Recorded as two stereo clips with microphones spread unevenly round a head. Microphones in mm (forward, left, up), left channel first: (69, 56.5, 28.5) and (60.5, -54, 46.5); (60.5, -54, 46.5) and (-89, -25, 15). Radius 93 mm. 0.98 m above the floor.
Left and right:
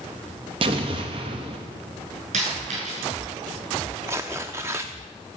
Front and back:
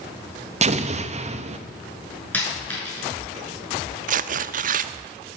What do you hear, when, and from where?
0.6 s an explosion: 150° right, 1.0 m
2.3 s a dropped coin: 90° right, 6.5 m
4.1 s tearing paper: 160° right, 0.5 m